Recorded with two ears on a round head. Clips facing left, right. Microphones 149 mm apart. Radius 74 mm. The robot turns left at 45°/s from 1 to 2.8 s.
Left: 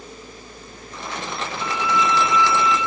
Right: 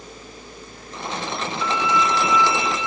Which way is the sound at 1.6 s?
25° left.